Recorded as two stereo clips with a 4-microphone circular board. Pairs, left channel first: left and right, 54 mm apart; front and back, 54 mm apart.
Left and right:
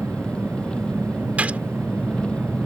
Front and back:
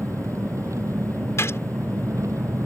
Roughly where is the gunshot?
Ahead right.